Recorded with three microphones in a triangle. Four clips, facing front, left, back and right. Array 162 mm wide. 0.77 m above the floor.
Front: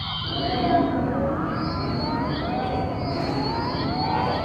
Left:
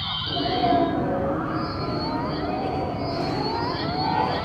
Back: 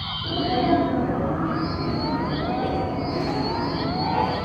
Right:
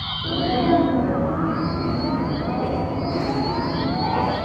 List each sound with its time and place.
0.2 s a sneeze: 95° right, 8.5 m